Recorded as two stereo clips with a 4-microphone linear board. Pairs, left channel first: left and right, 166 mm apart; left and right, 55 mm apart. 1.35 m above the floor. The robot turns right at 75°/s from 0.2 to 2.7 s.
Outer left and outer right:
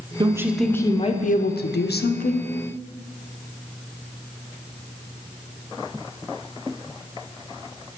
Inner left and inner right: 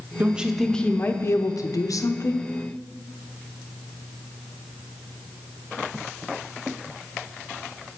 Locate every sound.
0.2 s a woman speaking: 30° right, 0.5 m; by 2.5 s 145° left, 0.5 m